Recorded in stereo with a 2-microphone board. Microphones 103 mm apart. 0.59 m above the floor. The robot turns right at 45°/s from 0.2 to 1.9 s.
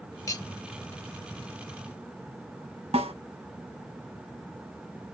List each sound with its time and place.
0.3 s cutlery clinking: 35° left (ahead or behind), 0.7 m; by 0.5 s 45° left (ahead or behind), 0.7 m
2.9 s a snare drum: 85° right, 1.9 m